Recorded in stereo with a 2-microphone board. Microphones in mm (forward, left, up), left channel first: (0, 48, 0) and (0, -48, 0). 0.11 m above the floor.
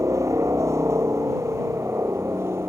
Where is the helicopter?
30° right (ahead or behind); by 2.7 s 25° right (ahead or behind).